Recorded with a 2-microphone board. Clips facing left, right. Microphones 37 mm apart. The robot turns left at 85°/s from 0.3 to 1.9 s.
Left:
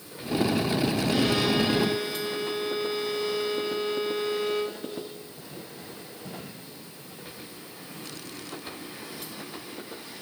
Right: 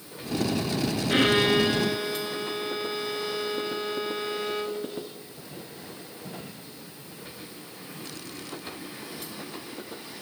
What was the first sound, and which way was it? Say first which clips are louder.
A violin: right 6 dB; 110° right.